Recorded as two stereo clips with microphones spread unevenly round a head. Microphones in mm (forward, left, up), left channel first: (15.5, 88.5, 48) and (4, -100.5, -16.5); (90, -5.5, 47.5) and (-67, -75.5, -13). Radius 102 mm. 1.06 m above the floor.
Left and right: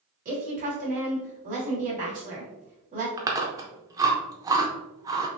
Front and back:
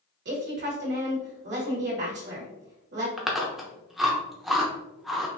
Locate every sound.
0.2 s a woman speaking: 140° right, 2 m
3.2 s chewing: 5° left, 0.6 m